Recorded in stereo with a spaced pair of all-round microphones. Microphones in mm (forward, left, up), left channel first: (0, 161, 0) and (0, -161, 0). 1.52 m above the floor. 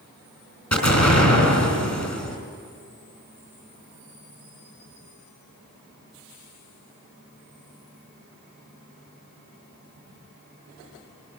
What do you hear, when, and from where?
0.7 s an explosion: 55° left (ahead or behind), 4 m